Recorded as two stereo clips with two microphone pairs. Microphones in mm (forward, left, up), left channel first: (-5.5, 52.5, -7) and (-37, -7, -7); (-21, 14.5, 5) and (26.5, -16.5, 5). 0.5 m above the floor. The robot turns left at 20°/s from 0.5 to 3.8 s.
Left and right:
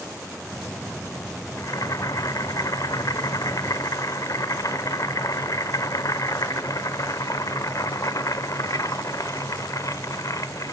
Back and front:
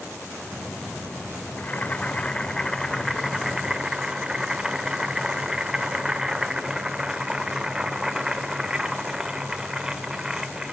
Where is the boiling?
90° left, 1.3 m; by 10.7 s 45° left, 1.3 m.